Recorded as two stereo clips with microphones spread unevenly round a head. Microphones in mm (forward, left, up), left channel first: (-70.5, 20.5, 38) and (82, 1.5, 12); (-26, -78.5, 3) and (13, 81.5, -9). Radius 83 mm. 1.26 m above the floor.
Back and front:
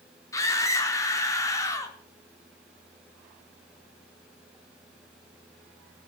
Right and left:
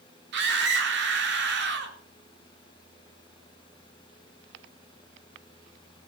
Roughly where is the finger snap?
No finger snap in this recording.